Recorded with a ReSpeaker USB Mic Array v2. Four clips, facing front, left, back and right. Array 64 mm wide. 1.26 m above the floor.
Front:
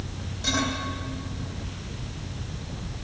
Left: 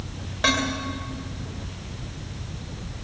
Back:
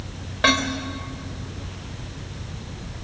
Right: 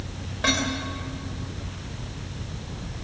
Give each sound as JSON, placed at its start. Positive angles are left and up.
{"t": 0.4, "sound": "dishes clattering", "azimuth_deg": 170, "distance_m": 3.5}